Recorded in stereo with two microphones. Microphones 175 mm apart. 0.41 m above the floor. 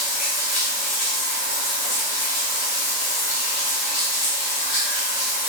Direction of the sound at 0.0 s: 65° left (ahead or behind).